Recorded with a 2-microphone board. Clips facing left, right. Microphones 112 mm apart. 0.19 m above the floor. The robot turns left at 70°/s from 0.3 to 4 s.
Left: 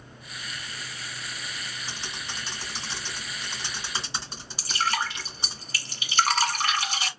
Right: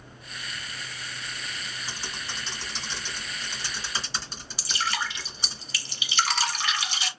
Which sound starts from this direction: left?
Dripping, at 4.6 s.